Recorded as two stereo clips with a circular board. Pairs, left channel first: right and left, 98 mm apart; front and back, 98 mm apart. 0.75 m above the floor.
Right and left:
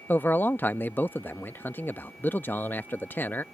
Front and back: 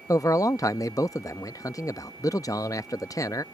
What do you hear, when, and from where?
0.1 s a man speaking: 30° right